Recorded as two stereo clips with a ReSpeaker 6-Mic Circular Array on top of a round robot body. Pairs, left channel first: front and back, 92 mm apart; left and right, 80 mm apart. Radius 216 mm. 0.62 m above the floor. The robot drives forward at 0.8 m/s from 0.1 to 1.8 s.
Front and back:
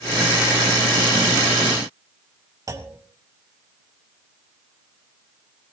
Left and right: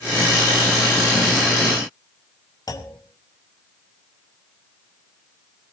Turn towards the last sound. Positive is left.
turn(degrees=130)